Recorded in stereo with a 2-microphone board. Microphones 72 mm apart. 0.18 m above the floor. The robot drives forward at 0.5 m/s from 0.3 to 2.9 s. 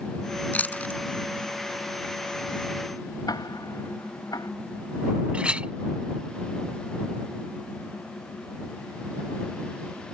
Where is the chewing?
20° left (ahead or behind).